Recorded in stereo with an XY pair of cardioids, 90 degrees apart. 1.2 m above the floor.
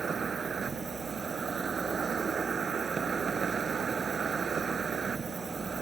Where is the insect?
40° right.